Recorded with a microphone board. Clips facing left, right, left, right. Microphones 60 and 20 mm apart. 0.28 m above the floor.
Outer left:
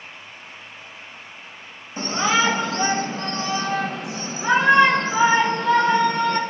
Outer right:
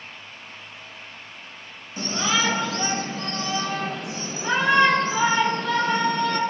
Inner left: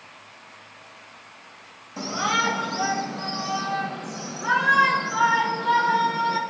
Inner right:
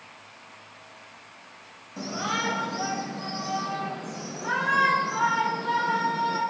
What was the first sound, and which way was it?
A shout, 30° left (ahead or behind).